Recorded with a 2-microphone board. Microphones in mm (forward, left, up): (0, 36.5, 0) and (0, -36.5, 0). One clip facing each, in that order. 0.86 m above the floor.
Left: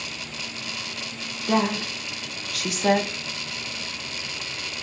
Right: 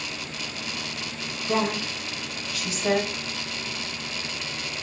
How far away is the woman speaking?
About 1.4 m.